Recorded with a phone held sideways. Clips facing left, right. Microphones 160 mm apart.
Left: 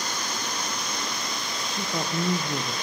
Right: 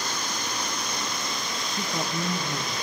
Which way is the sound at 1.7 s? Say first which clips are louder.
Left 1 dB; 5° left (ahead or behind).